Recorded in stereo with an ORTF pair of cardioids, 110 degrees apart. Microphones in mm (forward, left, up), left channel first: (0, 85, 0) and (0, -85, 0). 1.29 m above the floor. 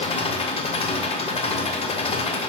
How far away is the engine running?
About 0.9 m.